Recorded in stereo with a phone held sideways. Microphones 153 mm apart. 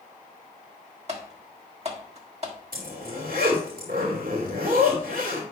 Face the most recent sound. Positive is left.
turn(degrees=-70)  # may be behind; listen again after turning